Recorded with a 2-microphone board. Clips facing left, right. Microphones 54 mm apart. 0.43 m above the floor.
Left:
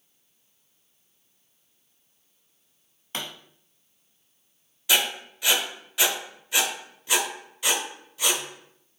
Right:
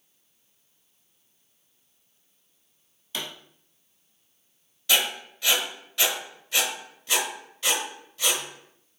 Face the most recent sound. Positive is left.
turn(degrees=10)  # may be behind; listen again after turning